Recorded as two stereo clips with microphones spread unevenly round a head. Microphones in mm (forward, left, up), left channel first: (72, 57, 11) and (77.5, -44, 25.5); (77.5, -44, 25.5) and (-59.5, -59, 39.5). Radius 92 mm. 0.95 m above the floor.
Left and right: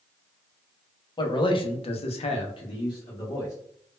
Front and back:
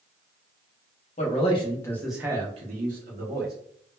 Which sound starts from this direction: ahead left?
A man speaking, at 1.2 s.